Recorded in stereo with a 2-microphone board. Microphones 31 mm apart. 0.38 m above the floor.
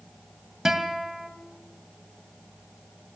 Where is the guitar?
10° right (ahead or behind), 2.5 m.